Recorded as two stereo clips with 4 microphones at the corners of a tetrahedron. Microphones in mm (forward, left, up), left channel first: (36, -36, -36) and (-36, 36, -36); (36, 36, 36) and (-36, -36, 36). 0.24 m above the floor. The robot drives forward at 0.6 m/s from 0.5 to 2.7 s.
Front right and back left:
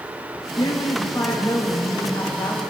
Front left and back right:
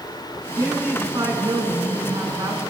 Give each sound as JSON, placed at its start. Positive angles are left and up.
{"t": 0.6, "sound": "a woman speaking", "azimuth_deg": -85, "distance_m": 3.0}